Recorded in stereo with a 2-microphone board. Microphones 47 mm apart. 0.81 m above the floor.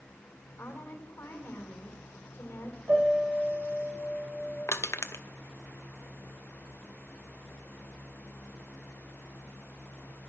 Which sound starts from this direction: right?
A piano, at 2.9 s.